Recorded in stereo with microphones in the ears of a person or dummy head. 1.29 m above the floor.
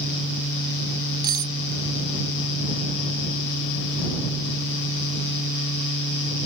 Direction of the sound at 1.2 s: 20° right (ahead or behind).